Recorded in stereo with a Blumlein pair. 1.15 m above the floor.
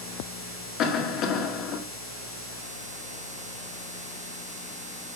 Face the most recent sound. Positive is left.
turn(degrees=35)